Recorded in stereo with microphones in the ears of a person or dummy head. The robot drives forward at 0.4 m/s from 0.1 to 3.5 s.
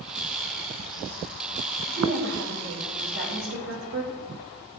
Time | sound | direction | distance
1.9 | a woman speaking | 75° right (ahead or behind) | 6.5 m